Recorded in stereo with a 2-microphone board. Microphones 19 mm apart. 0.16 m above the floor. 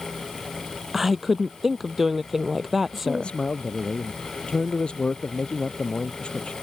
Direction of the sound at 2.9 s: 70° left (ahead or behind).